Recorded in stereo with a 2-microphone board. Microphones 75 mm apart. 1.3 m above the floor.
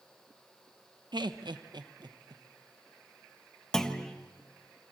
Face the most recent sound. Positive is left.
turn(degrees=10)  # may be behind; listen again after turning